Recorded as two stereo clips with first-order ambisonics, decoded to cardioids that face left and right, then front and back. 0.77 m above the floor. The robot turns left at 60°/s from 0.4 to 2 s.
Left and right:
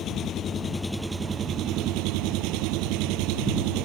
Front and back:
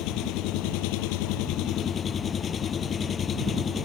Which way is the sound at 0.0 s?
35° left.